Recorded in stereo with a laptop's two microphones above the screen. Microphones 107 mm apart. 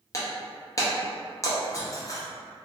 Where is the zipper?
I don't hear a zipper.